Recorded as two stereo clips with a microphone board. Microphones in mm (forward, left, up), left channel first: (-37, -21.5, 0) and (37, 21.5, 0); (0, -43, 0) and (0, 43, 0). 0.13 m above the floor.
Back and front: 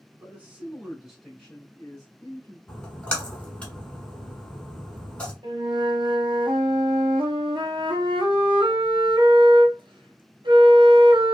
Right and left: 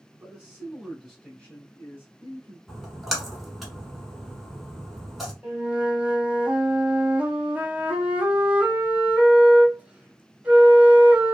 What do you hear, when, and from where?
0.1 s a man speaking: 55° left, 1.7 m; by 2.6 s 115° right, 2.0 m
2.7 s a splash: 175° left, 1.2 m
5.4 s a flute: 15° left, 0.8 m